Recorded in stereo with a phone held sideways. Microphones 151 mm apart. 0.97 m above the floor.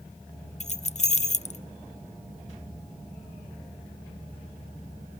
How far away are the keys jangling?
About 0.5 m.